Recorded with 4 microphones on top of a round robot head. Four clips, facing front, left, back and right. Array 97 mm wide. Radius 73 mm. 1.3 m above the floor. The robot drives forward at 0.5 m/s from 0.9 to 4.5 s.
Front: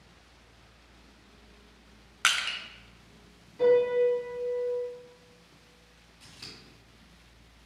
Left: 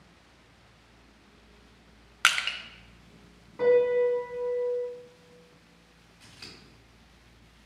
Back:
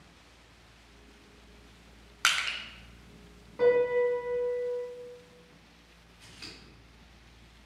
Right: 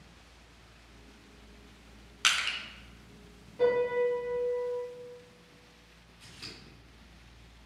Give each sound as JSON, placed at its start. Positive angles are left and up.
{"t": 2.2, "sound": "crushing", "azimuth_deg": 90, "distance_m": 0.7}
{"t": 3.6, "sound": "a piano", "azimuth_deg": 135, "distance_m": 1.0}
{"t": 6.2, "sound": "scissors", "azimuth_deg": 135, "distance_m": 1.0}